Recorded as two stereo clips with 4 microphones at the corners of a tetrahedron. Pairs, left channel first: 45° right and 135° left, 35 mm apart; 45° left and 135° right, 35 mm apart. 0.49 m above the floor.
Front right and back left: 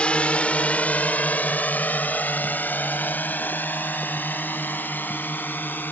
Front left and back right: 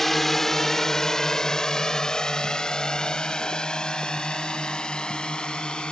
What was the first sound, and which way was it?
A drone, 35° right.